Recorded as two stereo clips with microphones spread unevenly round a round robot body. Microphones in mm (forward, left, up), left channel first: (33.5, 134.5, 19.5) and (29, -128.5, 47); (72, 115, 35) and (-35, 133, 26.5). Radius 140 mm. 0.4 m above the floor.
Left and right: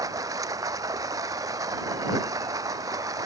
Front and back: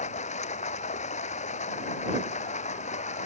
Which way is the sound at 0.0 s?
15° right.